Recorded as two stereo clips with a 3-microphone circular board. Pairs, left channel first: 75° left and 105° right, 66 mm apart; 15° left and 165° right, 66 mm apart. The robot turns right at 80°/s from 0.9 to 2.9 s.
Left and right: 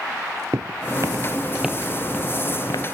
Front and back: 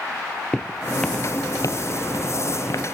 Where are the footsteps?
65° right; by 2.9 s 60° left.